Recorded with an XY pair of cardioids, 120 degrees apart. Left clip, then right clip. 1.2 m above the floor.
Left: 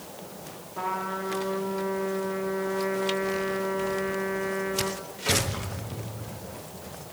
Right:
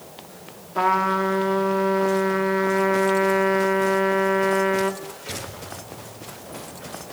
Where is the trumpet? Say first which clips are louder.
Right 11 dB; 60° right, 2.5 m.